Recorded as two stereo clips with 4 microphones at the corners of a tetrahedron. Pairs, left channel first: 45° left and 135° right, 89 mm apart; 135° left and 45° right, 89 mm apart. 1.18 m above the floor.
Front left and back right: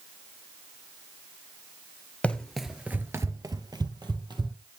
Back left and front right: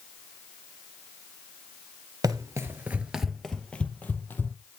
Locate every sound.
2.2 s running footsteps: 25° right, 1.5 m; by 4.5 s 160° right, 2.5 m